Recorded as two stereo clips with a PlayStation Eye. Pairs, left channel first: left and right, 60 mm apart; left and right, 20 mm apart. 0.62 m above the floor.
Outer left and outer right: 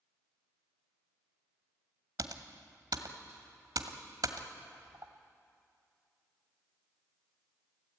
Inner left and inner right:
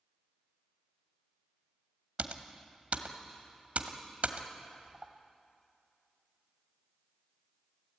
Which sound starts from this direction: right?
Typing on a keyboard, at 2.2 s.